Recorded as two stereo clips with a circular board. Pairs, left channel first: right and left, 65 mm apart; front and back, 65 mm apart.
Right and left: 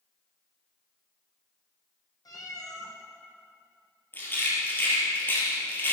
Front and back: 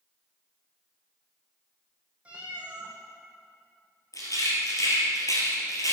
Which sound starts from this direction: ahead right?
A rattle, at 4.1 s.